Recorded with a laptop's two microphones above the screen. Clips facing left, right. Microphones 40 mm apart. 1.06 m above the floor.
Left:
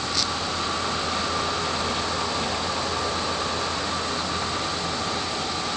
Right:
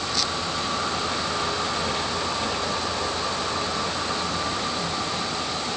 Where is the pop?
No pop in this recording.